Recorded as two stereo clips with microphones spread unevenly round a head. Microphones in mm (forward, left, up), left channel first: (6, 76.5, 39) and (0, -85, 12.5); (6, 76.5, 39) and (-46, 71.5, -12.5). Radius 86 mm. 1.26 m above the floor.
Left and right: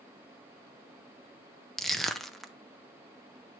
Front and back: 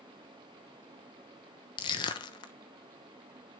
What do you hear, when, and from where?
1.8 s crushing: 5° right, 0.8 m